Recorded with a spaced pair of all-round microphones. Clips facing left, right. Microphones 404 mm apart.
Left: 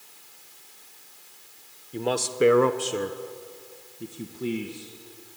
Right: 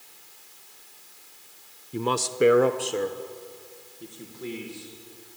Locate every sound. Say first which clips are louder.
1.9 s a man speaking: even; 20° right (ahead or behind), 0.8 m; by 5.4 s 50° left (ahead or behind), 2 m